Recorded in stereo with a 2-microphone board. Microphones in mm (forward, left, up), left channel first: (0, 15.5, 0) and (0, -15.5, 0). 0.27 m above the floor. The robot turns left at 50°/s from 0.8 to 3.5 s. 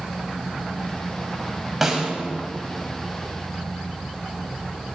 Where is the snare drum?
5° right (ahead or behind), 1.0 m; by 2.1 s 20° right (ahead or behind), 1.0 m.